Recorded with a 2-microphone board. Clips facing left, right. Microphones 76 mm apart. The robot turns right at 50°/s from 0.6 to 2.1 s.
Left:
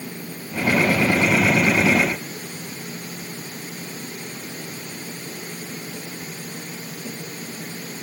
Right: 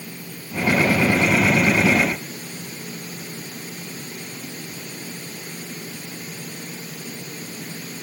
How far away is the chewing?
I don't hear chewing.